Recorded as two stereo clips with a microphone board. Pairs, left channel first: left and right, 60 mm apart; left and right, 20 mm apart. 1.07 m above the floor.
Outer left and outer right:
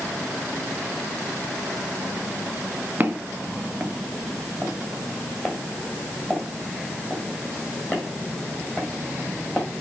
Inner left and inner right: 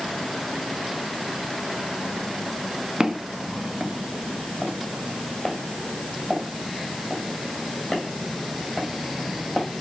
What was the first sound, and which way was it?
Footsteps, 30° right (ahead or behind).